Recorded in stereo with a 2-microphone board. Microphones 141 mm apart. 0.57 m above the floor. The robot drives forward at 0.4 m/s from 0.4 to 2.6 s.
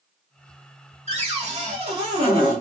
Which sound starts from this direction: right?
A cupboard door, at 1.1 s.